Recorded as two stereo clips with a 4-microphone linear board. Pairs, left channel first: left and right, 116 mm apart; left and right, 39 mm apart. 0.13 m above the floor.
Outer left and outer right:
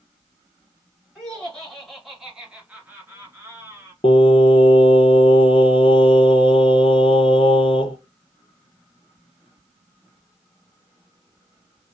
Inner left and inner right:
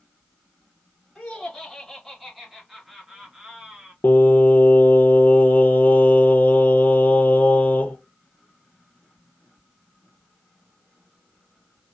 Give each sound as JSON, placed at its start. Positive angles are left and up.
{"t": 1.1, "sound": "laughter", "side_deg": 10, "distance_m": 1.3}
{"t": 4.0, "sound": "singing", "side_deg": 55, "distance_m": 0.7}